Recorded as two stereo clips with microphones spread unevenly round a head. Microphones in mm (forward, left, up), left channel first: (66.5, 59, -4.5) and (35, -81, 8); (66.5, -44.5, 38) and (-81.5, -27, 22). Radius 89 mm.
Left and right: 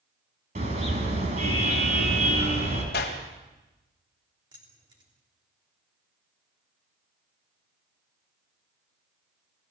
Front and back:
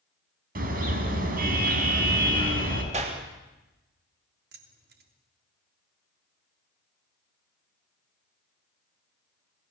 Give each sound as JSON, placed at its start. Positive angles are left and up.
{"t": 0.6, "sound": "a car horn", "azimuth_deg": -155, "distance_m": 4.5}
{"t": 2.9, "sound": "a clap", "azimuth_deg": 120, "distance_m": 3.0}
{"t": 4.5, "sound": "keys jangling", "azimuth_deg": -170, "distance_m": 3.0}